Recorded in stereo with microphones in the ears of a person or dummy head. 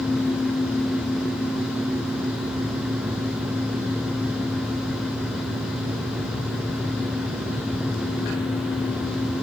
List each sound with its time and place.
Only background noise.